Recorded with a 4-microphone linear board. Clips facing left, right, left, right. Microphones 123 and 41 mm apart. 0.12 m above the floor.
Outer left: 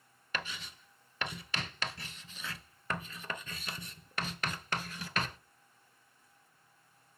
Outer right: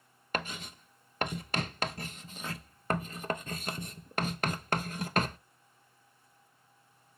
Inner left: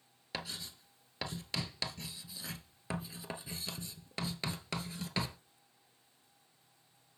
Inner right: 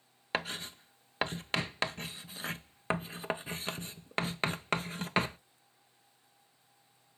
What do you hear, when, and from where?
0.3 s writing: 45° right (ahead or behind), 0.6 m